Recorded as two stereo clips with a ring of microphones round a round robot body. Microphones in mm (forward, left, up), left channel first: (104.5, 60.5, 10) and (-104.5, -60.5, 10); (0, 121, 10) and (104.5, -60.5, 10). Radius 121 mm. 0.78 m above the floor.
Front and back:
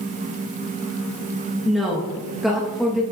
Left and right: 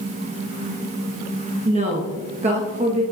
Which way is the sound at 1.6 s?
60° right.